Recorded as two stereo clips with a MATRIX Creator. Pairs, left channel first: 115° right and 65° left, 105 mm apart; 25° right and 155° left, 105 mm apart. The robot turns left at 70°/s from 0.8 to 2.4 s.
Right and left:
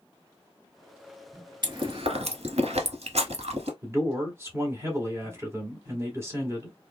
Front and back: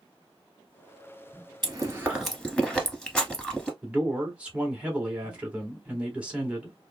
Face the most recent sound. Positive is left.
turn(degrees=95)